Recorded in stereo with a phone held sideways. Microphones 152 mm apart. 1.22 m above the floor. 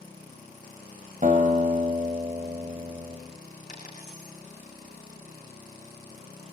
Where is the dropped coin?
50° left (ahead or behind), 7 m.